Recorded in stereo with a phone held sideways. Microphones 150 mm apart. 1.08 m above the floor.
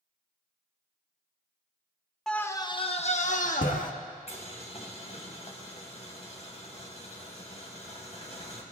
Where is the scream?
5° left (ahead or behind), 0.8 m; by 3.9 s 70° left (ahead or behind), 1.6 m.